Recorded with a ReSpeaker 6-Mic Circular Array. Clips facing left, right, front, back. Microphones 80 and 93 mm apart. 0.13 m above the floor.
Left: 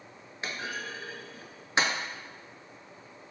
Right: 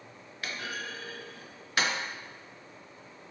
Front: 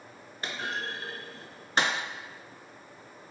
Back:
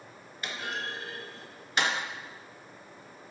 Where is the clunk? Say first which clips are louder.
Left 1 dB, front 1 dB; 35° left, 0.5 m.